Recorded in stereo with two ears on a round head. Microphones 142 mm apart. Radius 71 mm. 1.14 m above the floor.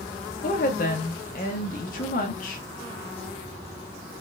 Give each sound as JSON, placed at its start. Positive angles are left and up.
{"t": 0.4, "sound": "a woman speaking", "side_deg": 55, "distance_m": 1.0}